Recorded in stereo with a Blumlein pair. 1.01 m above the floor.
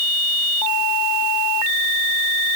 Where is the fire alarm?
No fire alarm in this recording.